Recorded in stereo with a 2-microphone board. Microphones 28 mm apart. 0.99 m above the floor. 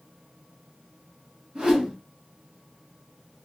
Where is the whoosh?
40° right (ahead or behind), 1.8 m.